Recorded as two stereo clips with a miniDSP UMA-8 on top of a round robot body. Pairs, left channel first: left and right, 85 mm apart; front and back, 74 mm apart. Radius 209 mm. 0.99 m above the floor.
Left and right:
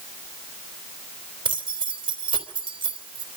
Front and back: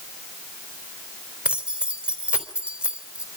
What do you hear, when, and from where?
1.4 s keys jangling: 105° right, 3.5 m